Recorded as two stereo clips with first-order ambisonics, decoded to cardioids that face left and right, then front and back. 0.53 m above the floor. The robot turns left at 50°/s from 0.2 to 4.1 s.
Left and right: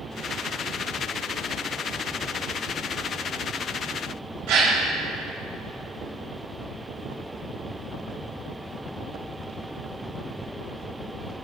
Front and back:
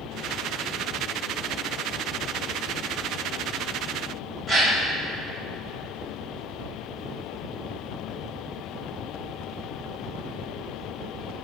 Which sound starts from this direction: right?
A gasp, at 4.5 s.